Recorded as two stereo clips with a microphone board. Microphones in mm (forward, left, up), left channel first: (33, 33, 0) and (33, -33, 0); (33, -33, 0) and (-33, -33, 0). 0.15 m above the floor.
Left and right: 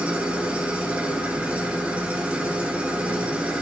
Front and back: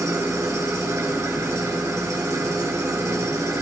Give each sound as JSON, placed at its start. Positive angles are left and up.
{"t": 0.0, "sound": "an engine running", "azimuth_deg": -155, "distance_m": 2.0}